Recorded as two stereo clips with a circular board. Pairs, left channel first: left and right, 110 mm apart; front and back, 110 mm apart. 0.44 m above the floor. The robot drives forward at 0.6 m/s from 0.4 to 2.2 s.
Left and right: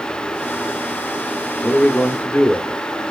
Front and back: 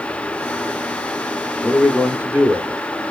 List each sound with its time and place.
1.6 s a man speaking: 55° left, 0.7 m; by 2.8 s 140° left, 0.7 m